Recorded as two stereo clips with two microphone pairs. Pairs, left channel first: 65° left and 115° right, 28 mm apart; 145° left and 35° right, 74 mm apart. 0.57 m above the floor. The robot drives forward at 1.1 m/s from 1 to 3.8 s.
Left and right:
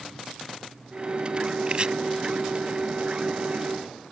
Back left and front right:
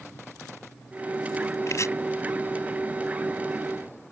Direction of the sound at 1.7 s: 170° right.